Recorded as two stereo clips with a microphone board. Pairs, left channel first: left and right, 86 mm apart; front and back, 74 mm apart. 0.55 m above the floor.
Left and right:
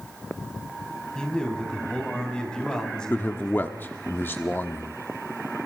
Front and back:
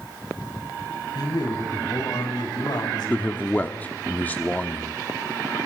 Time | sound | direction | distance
1.1 | a man speaking | 10° left | 4.5 m
3.1 | a man speaking | 45° left | 1.0 m